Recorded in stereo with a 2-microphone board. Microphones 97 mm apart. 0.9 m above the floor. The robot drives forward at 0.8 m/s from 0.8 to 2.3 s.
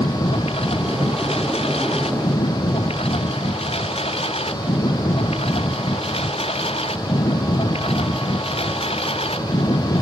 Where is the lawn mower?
85° left; by 10.0 s 80° left.